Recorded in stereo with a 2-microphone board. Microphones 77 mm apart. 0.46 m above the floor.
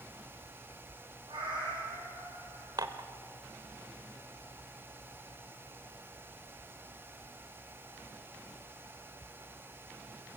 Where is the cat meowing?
85° right, 6.5 m.